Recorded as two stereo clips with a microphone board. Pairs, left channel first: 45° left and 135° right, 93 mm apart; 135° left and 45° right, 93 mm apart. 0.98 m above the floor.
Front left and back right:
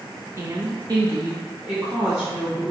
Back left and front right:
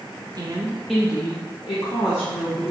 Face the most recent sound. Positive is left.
turn(degrees=145)